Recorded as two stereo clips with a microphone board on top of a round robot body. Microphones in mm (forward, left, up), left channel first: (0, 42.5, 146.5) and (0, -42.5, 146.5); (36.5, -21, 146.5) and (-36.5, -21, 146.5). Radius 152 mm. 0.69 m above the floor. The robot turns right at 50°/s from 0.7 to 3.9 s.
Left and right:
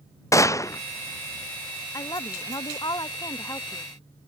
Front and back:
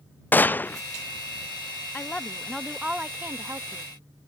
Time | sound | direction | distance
0.3 | a gunshot | 55° left | ?
1.9 | a woman speaking | 60° left | ?